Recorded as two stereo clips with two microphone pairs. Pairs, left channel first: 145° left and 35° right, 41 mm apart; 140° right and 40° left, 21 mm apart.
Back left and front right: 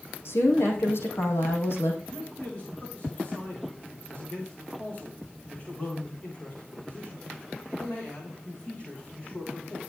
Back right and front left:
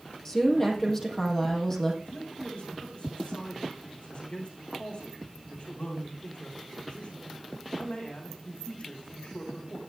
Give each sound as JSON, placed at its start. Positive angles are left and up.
{"t": 0.2, "sound": "a woman speaking", "azimuth_deg": 150, "distance_m": 4.5}
{"t": 2.1, "sound": "a man speaking", "azimuth_deg": -155, "distance_m": 8.0}